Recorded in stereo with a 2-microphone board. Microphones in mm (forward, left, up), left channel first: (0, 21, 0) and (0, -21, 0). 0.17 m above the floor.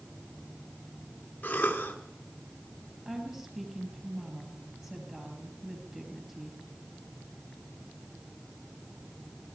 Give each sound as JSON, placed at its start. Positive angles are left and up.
{"t": 1.4, "sound": "a cough", "side_deg": 35, "distance_m": 1.5}
{"t": 3.0, "sound": "a woman speaking", "side_deg": -15, "distance_m": 4.0}